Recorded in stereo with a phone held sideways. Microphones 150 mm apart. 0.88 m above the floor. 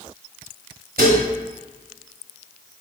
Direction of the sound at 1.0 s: 85° right.